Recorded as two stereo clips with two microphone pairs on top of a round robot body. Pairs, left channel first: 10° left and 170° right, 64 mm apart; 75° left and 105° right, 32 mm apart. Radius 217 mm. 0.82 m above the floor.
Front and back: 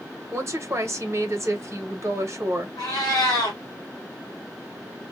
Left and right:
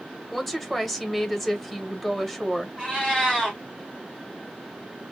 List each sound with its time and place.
0.3 s a woman speaking: 155° left, 1.2 m
2.8 s a cat meowing: 5° right, 1.3 m